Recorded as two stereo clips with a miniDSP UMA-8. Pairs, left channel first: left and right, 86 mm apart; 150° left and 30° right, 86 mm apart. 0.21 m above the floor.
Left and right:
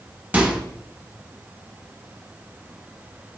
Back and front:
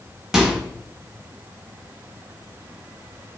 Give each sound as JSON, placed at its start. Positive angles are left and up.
{"t": 0.3, "sound": "a microwave", "azimuth_deg": -100, "distance_m": 0.8}